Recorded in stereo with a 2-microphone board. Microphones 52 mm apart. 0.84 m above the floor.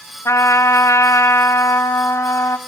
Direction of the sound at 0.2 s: 75° left (ahead or behind).